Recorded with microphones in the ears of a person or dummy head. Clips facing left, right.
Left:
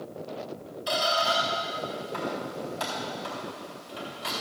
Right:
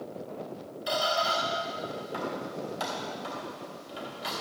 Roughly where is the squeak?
Centre.